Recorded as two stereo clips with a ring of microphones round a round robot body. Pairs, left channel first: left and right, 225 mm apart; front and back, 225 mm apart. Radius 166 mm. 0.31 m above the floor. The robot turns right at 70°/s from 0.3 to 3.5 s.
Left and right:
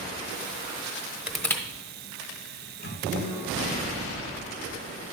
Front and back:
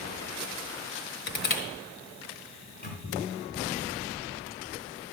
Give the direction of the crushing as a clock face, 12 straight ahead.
12 o'clock.